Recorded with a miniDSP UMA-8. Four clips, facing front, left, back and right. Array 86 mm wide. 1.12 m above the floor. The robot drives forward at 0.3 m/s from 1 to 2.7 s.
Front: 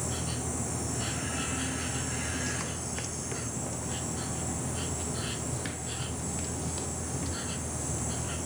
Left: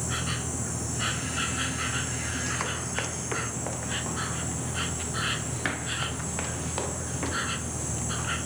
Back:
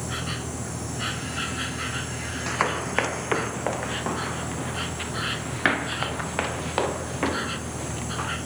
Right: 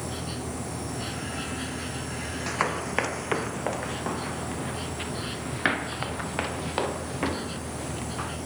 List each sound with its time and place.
0.0 s an insect: 135° left
2.5 s running footsteps: 150° right; by 8.3 s 160° right